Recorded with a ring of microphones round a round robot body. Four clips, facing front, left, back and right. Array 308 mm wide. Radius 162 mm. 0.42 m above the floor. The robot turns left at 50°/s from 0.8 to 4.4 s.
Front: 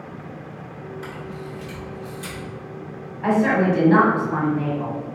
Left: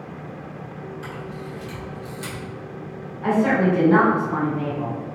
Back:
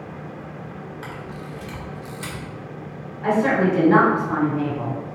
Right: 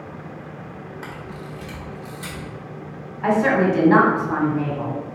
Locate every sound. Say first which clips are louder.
1.0 s a camera shutter: left 1 dB, front 1 dB; 125° right, 1.9 m; by 2.4 s 165° left, 1.9 m
3.2 s a woman speaking: right 1 dB, even; 70° right, 1.5 m; by 5.0 s 130° right, 1.5 m